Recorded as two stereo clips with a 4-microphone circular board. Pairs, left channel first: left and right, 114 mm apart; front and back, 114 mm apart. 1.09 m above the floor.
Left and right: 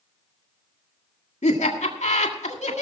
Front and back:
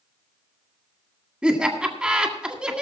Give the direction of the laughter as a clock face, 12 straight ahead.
9 o'clock.